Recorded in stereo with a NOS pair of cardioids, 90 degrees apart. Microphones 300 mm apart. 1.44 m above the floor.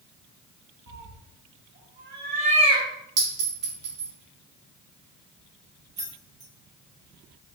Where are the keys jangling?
25° right, 1.1 m.